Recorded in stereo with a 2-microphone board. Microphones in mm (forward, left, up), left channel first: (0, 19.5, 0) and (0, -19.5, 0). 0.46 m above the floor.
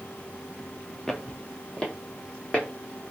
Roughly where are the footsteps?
Centre.